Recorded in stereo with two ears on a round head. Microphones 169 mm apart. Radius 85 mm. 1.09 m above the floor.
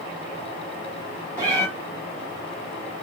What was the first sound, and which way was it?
A cat meowing, 10° left (ahead or behind).